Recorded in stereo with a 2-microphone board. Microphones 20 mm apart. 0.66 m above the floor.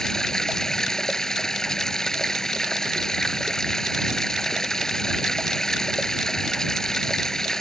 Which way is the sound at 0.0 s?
30° left (ahead or behind).